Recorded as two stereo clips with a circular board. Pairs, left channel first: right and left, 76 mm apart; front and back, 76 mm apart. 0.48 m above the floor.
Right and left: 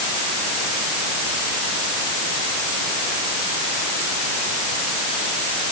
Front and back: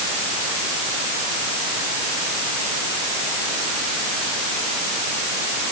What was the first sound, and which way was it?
Only background noise.